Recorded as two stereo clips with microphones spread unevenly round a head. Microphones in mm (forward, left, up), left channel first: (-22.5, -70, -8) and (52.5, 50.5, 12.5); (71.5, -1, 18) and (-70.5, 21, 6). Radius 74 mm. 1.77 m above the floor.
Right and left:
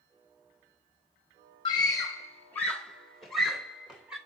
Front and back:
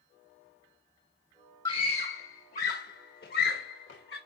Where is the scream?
60° right, 1.2 m; by 4.2 s 25° right, 2.5 m.